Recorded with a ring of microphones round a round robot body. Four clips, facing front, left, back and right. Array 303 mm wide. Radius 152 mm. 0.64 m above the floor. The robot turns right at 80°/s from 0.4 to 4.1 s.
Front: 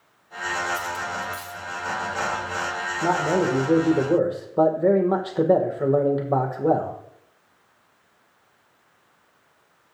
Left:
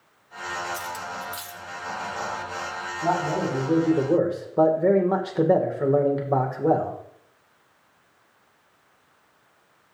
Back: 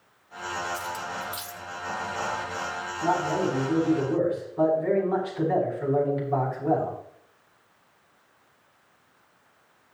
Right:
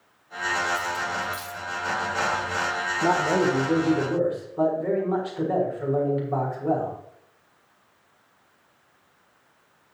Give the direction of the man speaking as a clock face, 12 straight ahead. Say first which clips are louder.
Right 2 dB, front 3 dB; 2 o'clock.